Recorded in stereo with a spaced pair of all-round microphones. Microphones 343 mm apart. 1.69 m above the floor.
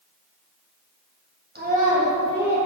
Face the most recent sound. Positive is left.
turn(degrees=-10)  # may be behind; listen again after turning